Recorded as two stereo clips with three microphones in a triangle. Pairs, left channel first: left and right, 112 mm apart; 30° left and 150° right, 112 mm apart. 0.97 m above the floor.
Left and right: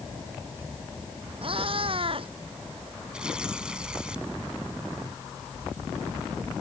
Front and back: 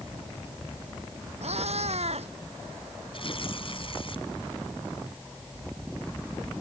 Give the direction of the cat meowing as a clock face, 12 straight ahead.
4 o'clock.